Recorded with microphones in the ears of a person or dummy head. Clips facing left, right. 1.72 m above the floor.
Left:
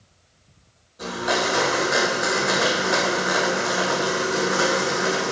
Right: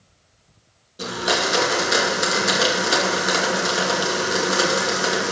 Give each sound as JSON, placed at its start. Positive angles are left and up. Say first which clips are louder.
{"t": 1.0, "sound": "a blender", "louder": "even", "side_deg": -40, "distance_m": 2.5}